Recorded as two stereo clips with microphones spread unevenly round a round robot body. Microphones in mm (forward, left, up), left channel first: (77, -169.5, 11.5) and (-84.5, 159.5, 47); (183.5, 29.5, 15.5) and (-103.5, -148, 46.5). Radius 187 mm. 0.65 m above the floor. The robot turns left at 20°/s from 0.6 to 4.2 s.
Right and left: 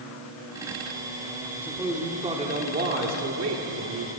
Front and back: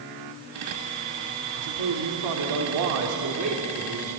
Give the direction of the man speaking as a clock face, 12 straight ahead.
5 o'clock.